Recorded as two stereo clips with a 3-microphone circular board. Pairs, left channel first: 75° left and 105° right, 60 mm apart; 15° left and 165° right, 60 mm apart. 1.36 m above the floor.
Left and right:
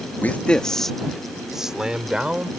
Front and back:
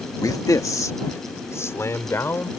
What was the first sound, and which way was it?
A man speaking, 15° left.